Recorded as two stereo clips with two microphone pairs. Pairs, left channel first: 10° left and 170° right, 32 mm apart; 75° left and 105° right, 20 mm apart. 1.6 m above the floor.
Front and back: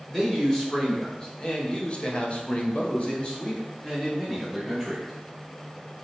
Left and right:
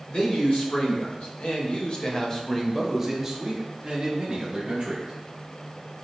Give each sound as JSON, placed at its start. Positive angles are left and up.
{"t": 0.1, "sound": "a man speaking", "azimuth_deg": 85, "distance_m": 1.5}